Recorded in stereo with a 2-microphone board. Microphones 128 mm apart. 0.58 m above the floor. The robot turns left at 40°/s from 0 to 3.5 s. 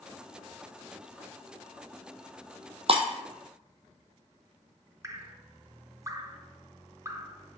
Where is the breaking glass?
50° right (ahead or behind), 0.9 m.